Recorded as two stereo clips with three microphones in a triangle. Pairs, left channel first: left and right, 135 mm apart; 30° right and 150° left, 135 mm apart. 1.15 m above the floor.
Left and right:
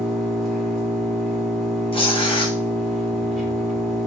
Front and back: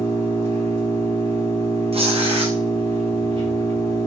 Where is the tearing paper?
125° left, 0.7 m.